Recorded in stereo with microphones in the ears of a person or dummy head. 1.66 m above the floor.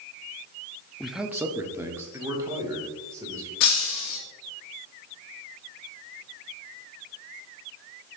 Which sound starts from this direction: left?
Breaking glass, at 3.6 s.